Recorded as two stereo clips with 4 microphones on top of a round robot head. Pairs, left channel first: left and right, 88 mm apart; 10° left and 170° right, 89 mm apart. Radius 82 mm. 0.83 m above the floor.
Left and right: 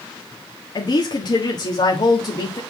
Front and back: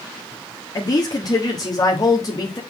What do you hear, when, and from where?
0.8 s a woman speaking: 55° left, 1.4 m